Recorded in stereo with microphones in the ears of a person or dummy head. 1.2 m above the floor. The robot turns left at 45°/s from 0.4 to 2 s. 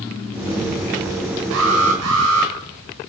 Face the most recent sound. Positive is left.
turn(degrees=-80)